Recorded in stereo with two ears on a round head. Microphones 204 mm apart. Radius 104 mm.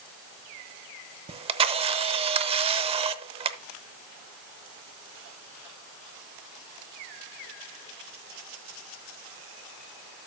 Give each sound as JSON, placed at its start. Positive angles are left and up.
{"t": 1.3, "sound": "a camera shutter", "side_deg": -25, "distance_m": 0.7}